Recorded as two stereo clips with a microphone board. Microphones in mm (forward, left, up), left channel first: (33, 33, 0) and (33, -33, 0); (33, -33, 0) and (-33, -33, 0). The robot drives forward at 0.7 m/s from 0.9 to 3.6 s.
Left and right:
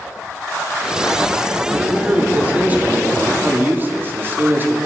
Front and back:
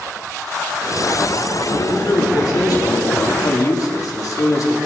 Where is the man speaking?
20° right, 3.5 m; by 4.8 s 30° right, 2 m.